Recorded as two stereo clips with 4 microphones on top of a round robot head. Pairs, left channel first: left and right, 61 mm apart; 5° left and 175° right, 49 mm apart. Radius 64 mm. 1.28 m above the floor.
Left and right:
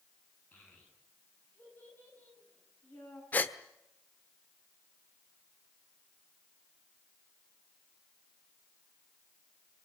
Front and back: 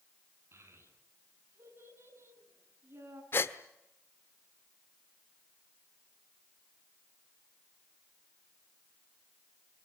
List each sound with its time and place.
0.5 s a child speaking: 155° left, 9 m
3.3 s a gasp: 35° left, 1.2 m